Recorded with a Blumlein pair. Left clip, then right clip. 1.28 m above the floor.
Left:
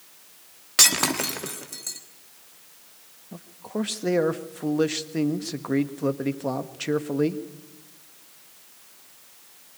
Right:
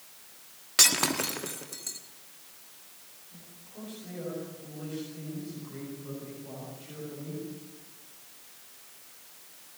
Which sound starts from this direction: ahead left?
A man speaking, at 3.3 s.